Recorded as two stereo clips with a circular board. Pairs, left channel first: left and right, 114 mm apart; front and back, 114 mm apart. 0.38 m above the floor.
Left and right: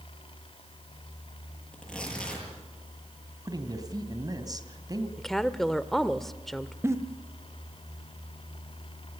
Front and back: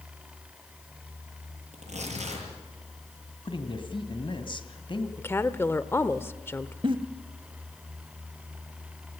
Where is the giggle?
150° right, 1.3 m.